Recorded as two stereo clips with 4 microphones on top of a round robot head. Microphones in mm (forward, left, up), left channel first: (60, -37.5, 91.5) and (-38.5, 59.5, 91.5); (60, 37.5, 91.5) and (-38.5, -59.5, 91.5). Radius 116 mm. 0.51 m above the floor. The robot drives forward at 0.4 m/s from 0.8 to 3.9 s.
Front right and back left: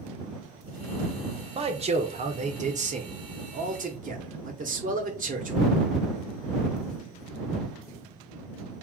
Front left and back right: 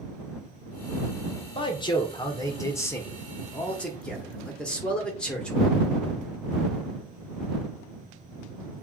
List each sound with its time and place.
1.6 s a man speaking: 95° left, 1.5 m; by 5.7 s 130° left, 1.8 m